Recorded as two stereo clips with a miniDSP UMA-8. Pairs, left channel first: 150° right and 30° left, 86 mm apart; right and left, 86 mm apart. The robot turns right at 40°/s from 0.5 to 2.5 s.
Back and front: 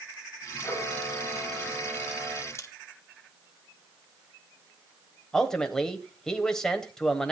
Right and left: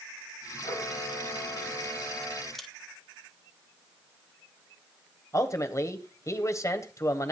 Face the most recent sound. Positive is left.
turn(degrees=-70)